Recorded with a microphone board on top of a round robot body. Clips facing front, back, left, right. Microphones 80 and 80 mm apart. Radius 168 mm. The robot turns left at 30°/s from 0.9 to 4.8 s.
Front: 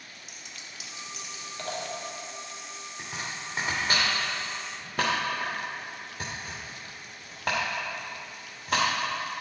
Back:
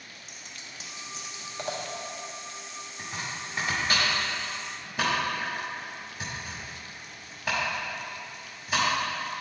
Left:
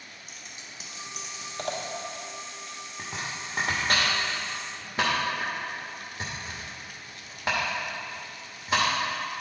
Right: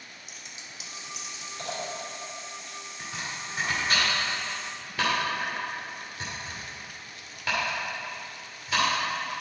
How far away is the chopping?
About 0.6 m.